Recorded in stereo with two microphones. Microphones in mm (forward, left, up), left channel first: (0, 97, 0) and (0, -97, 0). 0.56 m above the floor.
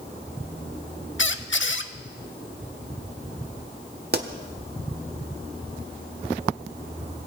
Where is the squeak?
75° left (ahead or behind), 0.8 m.